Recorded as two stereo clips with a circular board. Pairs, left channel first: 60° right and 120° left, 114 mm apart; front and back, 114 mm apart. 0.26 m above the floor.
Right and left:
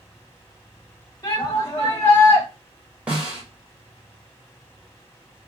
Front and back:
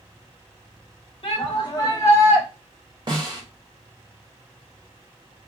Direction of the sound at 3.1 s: 170° right.